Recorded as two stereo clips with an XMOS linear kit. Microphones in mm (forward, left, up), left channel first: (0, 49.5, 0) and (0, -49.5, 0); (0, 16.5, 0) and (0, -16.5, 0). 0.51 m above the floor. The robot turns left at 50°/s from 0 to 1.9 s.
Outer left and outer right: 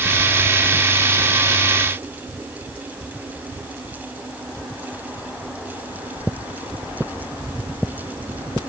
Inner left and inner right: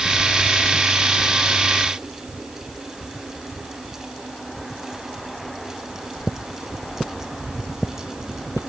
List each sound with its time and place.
Only background noise.